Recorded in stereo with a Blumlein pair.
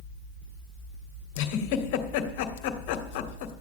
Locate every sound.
1.4 s a giggle: 45° left, 1.8 m